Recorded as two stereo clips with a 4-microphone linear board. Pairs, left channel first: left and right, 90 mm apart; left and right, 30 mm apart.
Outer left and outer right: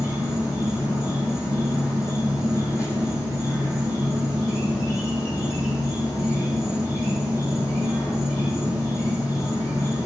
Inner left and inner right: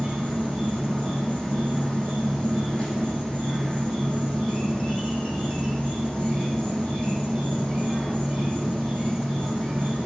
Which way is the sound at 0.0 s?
35° left (ahead or behind).